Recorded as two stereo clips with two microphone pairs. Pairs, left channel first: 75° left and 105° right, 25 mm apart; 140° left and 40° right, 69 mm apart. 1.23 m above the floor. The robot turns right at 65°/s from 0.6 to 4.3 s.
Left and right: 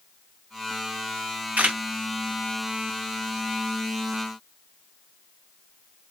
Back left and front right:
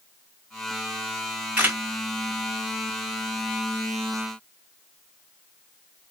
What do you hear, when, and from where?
1.6 s a camera shutter: 105° right, 1.6 m; by 1.8 s 90° right, 1.6 m